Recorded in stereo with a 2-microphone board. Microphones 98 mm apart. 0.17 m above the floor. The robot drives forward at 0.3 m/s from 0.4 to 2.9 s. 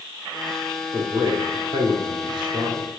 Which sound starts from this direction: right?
A man speaking, at 0.9 s.